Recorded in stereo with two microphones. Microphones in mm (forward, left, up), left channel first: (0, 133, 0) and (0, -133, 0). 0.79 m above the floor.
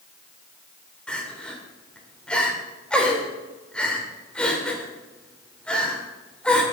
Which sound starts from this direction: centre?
Crying, at 1.1 s.